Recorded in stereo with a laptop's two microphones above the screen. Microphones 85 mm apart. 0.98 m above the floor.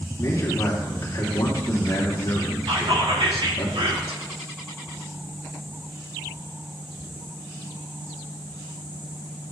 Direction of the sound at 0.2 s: 40° left (ahead or behind).